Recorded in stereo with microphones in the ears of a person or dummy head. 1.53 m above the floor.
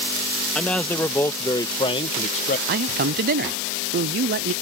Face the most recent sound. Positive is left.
turn(degrees=-45)  # may be behind; listen again after turning